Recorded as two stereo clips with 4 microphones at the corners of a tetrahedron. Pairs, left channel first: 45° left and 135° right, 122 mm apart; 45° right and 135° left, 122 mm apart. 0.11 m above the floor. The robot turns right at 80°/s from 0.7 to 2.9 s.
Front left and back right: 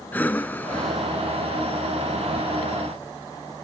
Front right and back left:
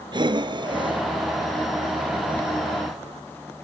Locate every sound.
0.1 s breathing: 115° left, 0.9 m; by 3.3 s 70° right, 0.9 m